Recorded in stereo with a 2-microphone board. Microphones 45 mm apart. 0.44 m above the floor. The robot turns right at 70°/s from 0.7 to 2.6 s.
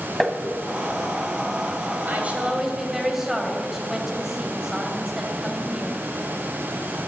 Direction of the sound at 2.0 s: 50° right.